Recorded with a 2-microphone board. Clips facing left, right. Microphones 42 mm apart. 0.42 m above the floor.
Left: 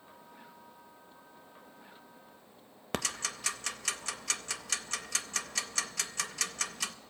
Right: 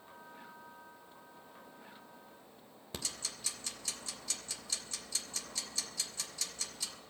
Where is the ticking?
70° left (ahead or behind), 0.6 m.